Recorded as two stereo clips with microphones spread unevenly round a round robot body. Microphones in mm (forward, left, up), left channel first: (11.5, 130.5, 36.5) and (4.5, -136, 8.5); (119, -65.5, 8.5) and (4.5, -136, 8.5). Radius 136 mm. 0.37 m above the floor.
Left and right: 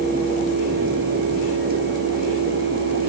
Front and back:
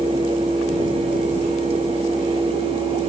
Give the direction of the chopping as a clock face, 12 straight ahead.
I don't hear chopping.